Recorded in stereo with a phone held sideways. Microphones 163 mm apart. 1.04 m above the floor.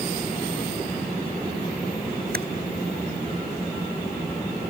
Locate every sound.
2.3 s typing on a keyboard: 70° right (ahead or behind)